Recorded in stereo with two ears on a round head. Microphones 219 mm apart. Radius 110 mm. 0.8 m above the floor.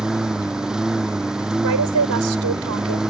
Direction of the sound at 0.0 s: 5° right (ahead or behind).